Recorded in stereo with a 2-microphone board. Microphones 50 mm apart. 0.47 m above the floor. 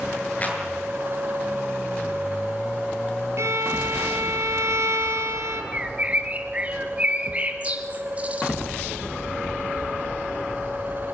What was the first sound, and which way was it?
A clap, 30° left (ahead or behind).